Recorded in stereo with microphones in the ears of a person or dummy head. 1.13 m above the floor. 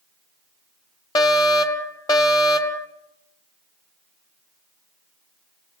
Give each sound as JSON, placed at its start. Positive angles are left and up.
{"t": 1.1, "sound": "a fire alarm", "side_deg": 20, "distance_m": 1.7}